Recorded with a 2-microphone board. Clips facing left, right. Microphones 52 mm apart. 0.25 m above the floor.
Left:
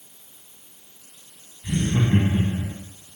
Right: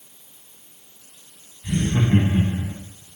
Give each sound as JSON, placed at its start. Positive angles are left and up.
{"t": 1.6, "sound": "laughter", "side_deg": 5, "distance_m": 1.6}